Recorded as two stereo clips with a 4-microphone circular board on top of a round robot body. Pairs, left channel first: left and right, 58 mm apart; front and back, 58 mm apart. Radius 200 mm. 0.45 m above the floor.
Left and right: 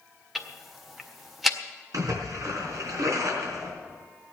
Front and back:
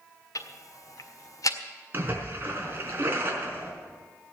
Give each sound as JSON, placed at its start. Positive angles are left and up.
{"t": 0.3, "sound": "ticking", "azimuth_deg": -5, "distance_m": 1.9}
{"t": 1.9, "sound": "a splash", "azimuth_deg": -125, "distance_m": 4.0}